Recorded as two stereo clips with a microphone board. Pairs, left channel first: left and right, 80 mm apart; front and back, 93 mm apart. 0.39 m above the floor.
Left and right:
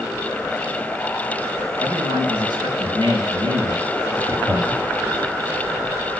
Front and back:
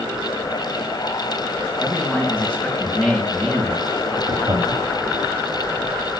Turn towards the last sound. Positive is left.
turn(degrees=-145)